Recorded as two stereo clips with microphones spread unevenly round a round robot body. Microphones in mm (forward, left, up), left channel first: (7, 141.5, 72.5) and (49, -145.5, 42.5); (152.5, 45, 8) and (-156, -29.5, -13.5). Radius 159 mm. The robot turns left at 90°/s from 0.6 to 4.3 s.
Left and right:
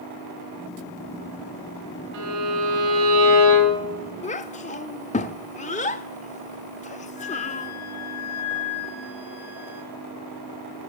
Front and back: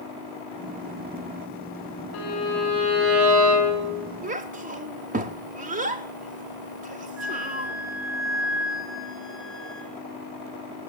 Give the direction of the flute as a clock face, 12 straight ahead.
7 o'clock.